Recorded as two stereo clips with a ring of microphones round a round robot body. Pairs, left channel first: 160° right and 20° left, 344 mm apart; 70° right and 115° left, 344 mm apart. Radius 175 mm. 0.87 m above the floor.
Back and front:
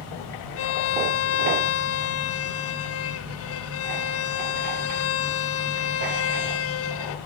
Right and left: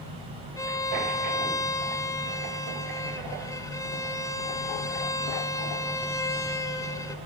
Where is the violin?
145° right, 1.2 m.